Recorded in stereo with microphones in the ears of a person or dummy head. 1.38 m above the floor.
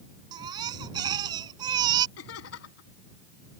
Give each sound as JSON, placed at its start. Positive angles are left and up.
{"t": 0.3, "sound": "a baby crying", "side_deg": -20}
{"t": 2.2, "sound": "laughter", "side_deg": 75}